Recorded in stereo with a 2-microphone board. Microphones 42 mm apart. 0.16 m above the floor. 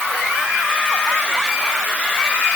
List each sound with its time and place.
Only background noise.